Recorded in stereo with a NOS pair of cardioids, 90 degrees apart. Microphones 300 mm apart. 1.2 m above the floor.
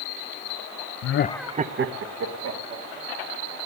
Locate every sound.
1.0 s laughter: 60° left, 0.6 m; by 3.6 s 65° right, 3.5 m